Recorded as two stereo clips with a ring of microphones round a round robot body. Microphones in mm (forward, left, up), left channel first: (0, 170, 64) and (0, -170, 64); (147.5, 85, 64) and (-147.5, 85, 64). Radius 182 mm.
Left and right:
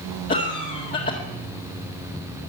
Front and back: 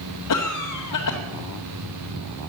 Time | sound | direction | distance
0.3 | a cough | 25° left | 1.9 m